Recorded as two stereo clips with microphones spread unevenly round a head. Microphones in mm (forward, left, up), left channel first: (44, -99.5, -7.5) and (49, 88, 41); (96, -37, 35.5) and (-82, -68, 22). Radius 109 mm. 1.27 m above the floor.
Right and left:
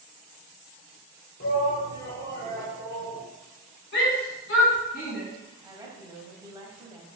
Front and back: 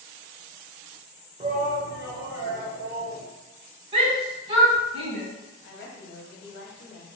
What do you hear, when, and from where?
1.4 s a shout: 120° right, 0.7 m; by 3.2 s 170° left, 1.6 m
3.9 s a shout: 130° right, 1.1 m
5.6 s a woman speaking: 10° left, 0.8 m